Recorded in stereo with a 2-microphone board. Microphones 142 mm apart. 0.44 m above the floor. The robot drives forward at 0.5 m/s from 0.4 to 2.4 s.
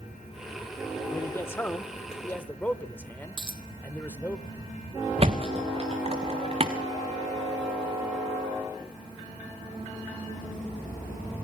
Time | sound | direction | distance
1.1 | a man speaking | 20° left (ahead or behind) | 1.0 m
3.4 | a dropped coin | 35° right (ahead or behind) | 1.6 m
5.2 | a thud | 45° right (ahead or behind) | 1.9 m